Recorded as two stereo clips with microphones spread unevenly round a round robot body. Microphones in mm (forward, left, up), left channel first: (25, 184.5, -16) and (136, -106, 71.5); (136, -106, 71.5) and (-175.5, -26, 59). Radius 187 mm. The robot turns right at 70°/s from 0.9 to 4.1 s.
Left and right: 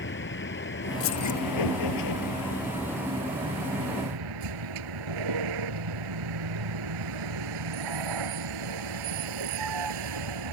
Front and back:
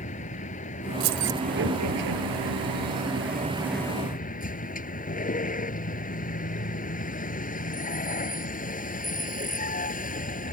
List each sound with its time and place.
0.0 s a vehicle: 55° left; by 10.5 s 80° right
1.0 s keys jangling: 155° left; by 1.4 s 175° right